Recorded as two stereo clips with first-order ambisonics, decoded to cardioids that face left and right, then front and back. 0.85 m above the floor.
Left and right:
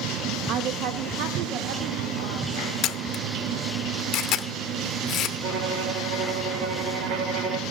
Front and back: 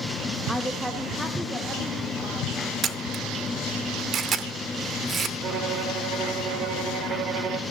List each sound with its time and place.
0.5 s a woman speaking: 85° right, 0.5 m; by 2.5 s 95° right, 2.5 m
2.8 s a camera shutter: 125° left, 0.7 m
5.4 s a violin: 140° right, 1.4 m